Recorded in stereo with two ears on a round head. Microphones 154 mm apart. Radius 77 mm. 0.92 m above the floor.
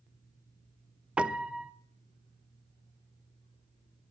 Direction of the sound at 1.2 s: 5° right (ahead or behind).